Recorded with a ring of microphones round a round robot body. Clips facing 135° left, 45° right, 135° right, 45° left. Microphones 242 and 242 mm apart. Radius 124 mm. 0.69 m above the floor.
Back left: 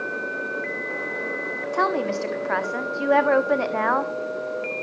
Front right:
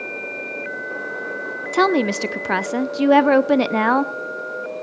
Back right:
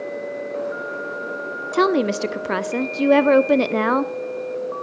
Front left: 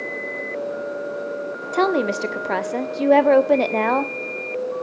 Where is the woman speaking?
65° right, 1.4 m.